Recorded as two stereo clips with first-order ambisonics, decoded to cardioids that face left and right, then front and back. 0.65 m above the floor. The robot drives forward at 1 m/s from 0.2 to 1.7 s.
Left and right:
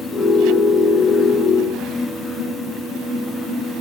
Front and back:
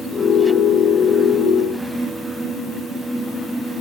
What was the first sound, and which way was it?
Only background noise.